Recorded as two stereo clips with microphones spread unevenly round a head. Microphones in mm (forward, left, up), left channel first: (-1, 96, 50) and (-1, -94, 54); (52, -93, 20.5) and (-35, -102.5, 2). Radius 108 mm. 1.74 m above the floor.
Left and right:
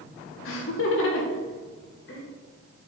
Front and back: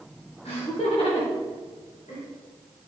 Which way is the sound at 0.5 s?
70° left.